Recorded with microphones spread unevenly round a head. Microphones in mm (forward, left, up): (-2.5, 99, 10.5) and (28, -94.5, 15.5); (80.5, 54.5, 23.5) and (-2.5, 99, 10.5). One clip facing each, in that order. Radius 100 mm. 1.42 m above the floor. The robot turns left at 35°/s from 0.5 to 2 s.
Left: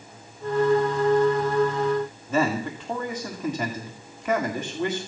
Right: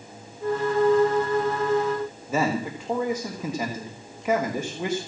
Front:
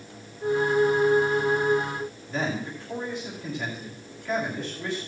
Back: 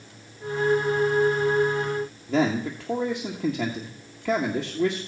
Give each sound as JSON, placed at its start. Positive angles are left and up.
{"t": 2.3, "sound": "a man speaking", "azimuth_deg": -160, "distance_m": 1.8}